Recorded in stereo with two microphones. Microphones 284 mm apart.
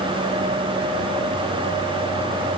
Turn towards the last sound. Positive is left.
No sound to turn to.